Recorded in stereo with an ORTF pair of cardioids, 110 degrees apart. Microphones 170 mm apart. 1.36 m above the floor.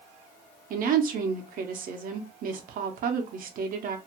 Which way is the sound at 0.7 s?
55° right.